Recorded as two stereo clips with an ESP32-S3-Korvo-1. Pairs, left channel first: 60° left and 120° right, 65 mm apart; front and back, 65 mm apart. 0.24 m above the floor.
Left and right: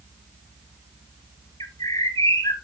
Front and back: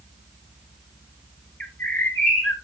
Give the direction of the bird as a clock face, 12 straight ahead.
10 o'clock.